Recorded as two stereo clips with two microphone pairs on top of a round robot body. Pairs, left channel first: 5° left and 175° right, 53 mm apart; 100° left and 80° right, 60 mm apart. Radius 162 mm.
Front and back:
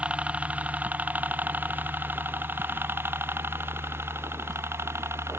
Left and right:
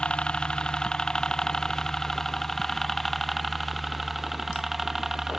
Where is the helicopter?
145° left; by 5.4 s 160° right.